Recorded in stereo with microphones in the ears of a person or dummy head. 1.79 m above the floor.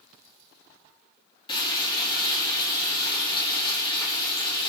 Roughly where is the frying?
Left.